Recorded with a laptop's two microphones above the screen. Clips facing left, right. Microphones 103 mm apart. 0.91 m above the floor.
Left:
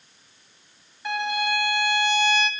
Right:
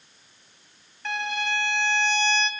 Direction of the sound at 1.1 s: 10° left (ahead or behind).